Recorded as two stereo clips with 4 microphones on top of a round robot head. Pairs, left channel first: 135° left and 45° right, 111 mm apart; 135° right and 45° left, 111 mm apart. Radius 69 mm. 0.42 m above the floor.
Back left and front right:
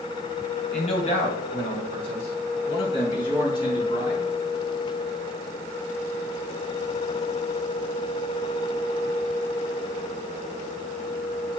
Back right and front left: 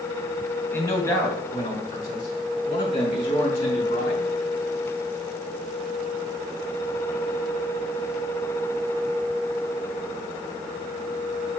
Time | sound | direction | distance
0.7 | a man speaking | 155° left | 3 m